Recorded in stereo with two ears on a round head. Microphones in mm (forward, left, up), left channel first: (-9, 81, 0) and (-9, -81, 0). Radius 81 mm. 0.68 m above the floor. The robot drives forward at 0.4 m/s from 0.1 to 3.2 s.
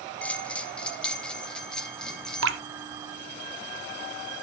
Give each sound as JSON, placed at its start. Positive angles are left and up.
{"t": 0.2, "sound": "a bell", "side_deg": 5, "distance_m": 0.8}
{"t": 2.4, "sound": "dripping", "side_deg": -75, "distance_m": 0.9}